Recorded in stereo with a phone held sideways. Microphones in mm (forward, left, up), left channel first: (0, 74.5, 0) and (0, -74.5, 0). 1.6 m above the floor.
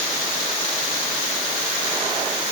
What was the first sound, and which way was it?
Only background noise.